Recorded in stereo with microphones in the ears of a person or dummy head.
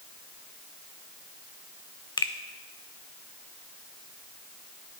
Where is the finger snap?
25° left (ahead or behind), 0.6 m.